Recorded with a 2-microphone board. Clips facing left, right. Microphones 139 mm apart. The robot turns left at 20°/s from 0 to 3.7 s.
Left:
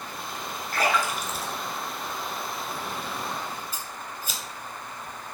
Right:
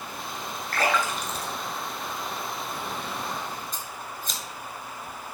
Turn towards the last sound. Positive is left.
turn(degrees=10)  # may be behind; listen again after turning